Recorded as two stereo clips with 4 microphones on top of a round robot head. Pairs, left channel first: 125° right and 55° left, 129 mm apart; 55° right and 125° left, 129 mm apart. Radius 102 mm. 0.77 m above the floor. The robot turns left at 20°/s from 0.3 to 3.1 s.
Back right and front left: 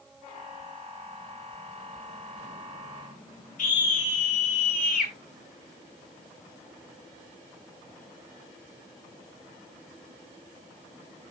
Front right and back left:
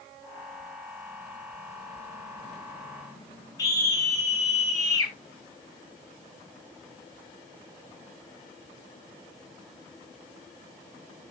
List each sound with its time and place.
3.6 s a scream: 120° right, 6.5 m